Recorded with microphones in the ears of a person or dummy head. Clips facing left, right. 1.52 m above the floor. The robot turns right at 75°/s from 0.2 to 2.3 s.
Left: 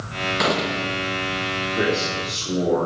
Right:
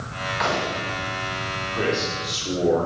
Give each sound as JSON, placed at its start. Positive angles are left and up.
{"t": 0.4, "sound": "a gunshot", "azimuth_deg": 55, "distance_m": 1.1}
{"t": 1.7, "sound": "a man speaking", "azimuth_deg": 155, "distance_m": 4.0}